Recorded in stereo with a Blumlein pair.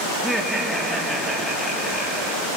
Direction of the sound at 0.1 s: Straight ahead.